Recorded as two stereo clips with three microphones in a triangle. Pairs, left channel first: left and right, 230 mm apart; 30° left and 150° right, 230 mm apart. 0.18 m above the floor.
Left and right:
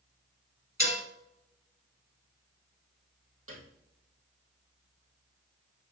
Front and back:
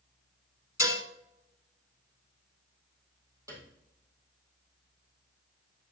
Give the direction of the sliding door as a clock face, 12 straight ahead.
I don't hear a sliding door.